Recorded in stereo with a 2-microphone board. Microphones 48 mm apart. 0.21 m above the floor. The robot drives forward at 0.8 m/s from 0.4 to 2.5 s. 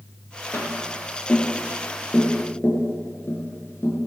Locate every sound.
0.5 s tapping: 50° left (ahead or behind), 3.5 m; by 4.0 s 65° left (ahead or behind), 3 m